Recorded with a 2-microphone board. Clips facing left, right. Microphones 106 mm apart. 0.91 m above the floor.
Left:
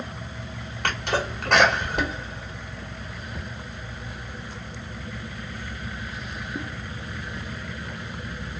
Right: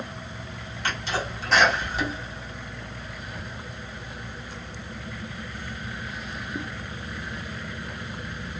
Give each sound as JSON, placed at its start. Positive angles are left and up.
{"t": 0.8, "sound": "a sneeze", "side_deg": 65, "distance_m": 1.1}